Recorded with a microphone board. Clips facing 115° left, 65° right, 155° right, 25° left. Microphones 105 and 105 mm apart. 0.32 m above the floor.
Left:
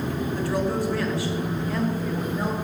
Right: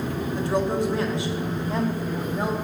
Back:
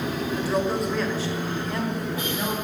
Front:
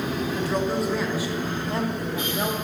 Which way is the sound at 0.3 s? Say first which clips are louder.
Right 2 dB, back 1 dB; 100° right.